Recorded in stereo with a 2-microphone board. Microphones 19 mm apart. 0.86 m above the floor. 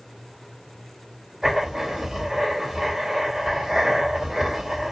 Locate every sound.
1.4 s writing: 30° right (ahead or behind), 3.5 m